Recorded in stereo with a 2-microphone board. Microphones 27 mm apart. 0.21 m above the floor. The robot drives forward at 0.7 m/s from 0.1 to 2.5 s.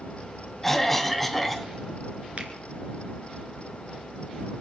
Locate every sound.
0.6 s a cough: 10° left (ahead or behind), 1.0 m
2.4 s a finger snap: 40° right (ahead or behind), 2.5 m